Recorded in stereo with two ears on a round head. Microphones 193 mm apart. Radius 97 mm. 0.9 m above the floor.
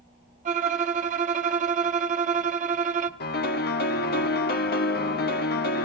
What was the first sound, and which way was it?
A violin, 35° right (ahead or behind).